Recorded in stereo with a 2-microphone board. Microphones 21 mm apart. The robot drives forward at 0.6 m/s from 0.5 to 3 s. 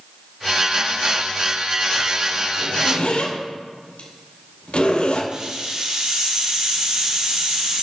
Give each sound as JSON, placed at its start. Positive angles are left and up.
{"t": 2.6, "sound": "a zipper", "side_deg": 70, "distance_m": 3.0}
{"t": 5.3, "sound": "a hiss", "side_deg": -35, "distance_m": 3.5}